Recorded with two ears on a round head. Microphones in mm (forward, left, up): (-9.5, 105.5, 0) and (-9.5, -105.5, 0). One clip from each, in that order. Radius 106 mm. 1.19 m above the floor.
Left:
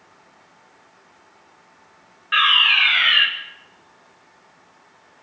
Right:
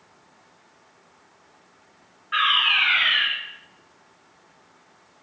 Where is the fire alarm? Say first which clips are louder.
Left 4 dB; 80° left, 9 m.